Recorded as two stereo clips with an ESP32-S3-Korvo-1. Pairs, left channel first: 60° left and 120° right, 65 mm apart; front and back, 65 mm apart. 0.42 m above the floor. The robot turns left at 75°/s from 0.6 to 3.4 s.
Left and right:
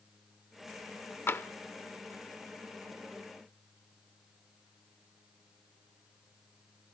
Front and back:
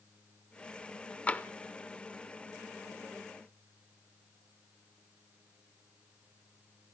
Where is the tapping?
55° left, 0.7 m; by 1.5 s 40° left, 0.7 m.